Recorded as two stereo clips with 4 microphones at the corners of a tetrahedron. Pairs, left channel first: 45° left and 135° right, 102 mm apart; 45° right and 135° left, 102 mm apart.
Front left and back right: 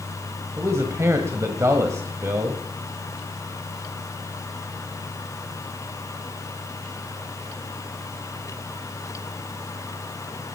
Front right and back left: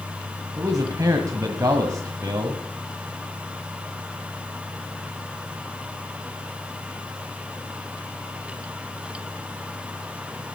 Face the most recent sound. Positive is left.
turn(degrees=175)